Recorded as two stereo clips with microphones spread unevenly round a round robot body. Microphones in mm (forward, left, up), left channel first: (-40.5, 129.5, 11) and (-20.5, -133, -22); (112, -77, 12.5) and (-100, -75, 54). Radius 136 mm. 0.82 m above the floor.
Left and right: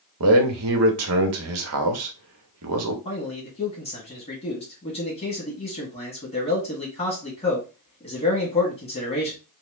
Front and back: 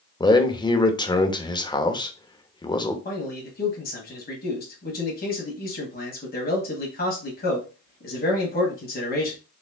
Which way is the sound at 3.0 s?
25° left.